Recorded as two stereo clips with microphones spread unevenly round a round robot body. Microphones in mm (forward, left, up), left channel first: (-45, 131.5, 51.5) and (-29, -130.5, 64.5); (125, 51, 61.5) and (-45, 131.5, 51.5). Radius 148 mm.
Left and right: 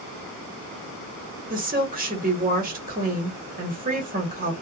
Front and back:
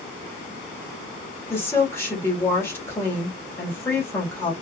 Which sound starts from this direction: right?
A woman speaking, at 1.5 s.